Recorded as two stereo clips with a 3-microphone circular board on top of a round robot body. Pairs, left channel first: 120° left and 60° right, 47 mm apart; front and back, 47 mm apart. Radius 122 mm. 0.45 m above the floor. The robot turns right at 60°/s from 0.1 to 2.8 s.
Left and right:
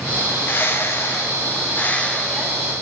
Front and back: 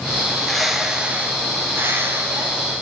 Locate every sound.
0.2 s a bird: 65° left, 1.8 m; by 2.7 s 145° right, 1.8 m